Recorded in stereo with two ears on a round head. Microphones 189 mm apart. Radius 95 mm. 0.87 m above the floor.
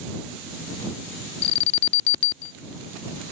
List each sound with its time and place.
1.4 s an alarm: 50° left (ahead or behind)